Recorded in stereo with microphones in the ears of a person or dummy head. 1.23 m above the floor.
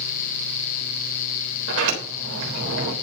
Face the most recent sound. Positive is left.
turn(degrees=-75)  # may be behind; listen again after turning